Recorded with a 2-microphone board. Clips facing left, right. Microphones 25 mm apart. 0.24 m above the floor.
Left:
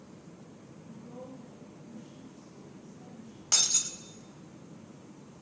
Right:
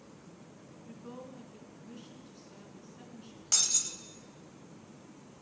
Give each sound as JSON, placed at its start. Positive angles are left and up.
{"t": 0.8, "sound": "a woman speaking", "side_deg": -50, "distance_m": 3.0}
{"t": 3.5, "sound": "breaking glass", "side_deg": 20, "distance_m": 0.8}